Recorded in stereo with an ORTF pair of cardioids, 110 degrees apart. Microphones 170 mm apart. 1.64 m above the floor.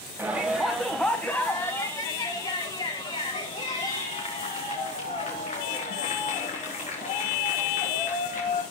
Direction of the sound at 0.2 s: 10° right.